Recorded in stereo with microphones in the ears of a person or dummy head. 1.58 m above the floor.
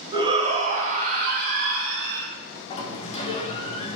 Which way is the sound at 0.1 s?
30° right (ahead or behind).